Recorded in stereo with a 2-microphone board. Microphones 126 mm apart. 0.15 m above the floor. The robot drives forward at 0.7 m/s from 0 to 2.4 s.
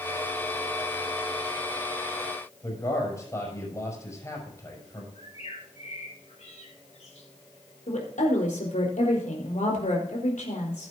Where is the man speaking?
25° left (ahead or behind), 6 m.